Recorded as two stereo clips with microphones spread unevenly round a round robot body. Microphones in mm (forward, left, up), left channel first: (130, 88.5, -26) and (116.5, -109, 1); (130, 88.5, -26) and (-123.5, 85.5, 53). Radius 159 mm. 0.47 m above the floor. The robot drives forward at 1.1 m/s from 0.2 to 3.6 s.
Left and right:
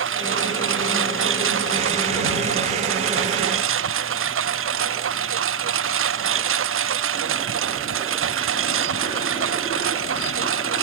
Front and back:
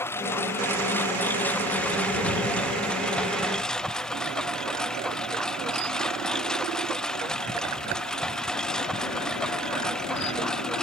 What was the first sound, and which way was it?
A lawn mower, 80° right.